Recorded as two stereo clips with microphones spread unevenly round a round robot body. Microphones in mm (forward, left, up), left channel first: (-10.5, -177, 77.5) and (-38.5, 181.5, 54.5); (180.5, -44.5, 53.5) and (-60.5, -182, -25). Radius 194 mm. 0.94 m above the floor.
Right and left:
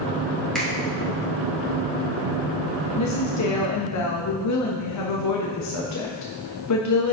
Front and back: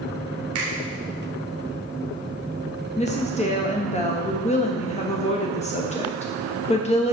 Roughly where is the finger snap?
Behind.